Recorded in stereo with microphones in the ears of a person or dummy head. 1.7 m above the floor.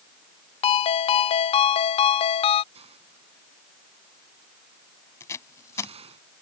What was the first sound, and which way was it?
A ringtone, 35° left (ahead or behind).